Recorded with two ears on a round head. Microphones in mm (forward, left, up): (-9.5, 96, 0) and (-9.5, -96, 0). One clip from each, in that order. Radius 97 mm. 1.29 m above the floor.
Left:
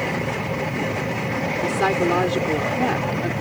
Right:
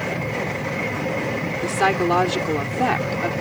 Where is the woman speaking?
30° right (ahead or behind); by 3.3 s 40° right (ahead or behind).